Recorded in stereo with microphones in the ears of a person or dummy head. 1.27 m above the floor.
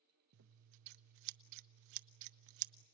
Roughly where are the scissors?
Right.